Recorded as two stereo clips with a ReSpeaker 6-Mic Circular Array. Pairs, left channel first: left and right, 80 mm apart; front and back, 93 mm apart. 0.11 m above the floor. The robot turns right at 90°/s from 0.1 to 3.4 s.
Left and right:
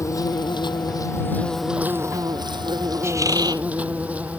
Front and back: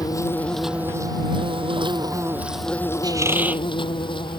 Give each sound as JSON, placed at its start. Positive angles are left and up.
{"t": 0.0, "sound": "an insect", "azimuth_deg": 45}
{"t": 3.0, "sound": "a squeak", "azimuth_deg": -145}